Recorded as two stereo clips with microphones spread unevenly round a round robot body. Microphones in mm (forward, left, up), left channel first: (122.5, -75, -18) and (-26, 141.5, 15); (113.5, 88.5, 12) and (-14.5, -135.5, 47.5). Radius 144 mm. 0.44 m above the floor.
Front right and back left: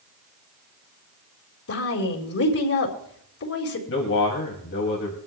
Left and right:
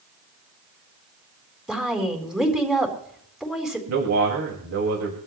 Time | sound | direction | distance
1.7 | a woman speaking | 30° right | 4 m
3.9 | a man speaking | 100° right | 2.5 m